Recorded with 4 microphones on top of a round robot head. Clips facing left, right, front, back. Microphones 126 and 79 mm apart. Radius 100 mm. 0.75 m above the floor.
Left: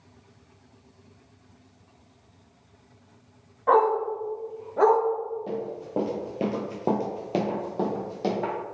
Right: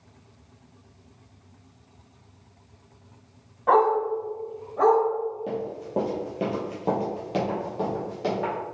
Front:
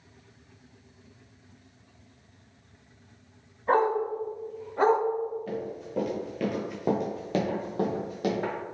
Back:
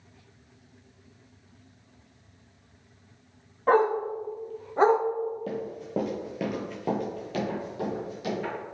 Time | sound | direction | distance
3.7 | a dog barking | 175° right | 1.3 m
5.5 | running footsteps | 175° right | 1.1 m